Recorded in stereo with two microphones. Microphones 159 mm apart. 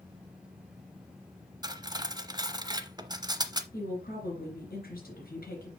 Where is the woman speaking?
70° left (ahead or behind), 3 m.